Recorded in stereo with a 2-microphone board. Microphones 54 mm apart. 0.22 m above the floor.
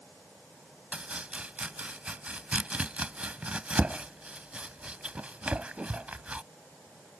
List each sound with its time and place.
0.9 s chopping: 25° right (ahead or behind)